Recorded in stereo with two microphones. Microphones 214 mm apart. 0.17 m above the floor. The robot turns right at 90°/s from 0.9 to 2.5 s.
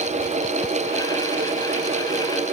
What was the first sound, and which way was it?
Only background noise.